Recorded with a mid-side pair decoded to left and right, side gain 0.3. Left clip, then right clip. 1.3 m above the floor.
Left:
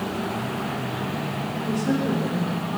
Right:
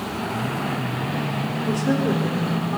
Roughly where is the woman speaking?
Ahead right.